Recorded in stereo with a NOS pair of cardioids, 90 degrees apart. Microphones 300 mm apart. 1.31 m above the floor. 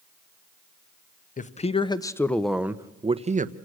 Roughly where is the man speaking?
Ahead left.